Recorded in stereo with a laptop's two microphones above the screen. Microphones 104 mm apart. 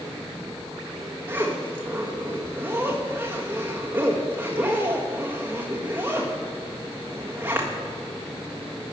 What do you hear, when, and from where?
1.3 s a zipper: 20° right (ahead or behind), 1.6 m